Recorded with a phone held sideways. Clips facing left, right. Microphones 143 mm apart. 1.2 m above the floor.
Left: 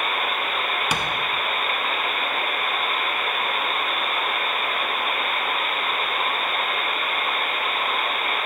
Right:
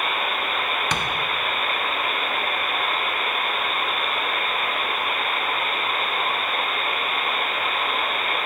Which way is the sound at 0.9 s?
10° left (ahead or behind).